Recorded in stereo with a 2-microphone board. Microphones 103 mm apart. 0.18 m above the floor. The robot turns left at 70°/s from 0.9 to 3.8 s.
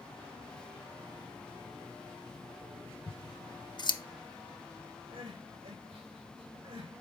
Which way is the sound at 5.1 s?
65° right (ahead or behind).